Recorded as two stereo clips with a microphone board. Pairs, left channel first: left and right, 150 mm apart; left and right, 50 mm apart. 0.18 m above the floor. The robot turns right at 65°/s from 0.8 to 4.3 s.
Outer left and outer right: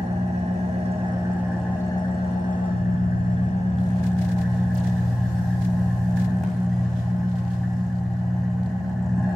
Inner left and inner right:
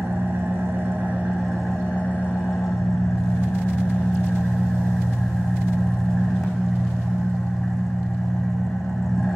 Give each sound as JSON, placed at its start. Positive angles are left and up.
{"t": 0.0, "sound": "an engine running", "azimuth_deg": -50, "distance_m": 2.5}